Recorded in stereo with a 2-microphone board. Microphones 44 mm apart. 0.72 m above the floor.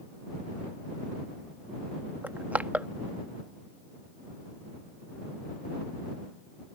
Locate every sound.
2.2 s crushing: 40° right (ahead or behind)